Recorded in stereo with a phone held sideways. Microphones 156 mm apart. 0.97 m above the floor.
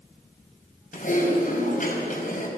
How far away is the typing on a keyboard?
About 4.5 m.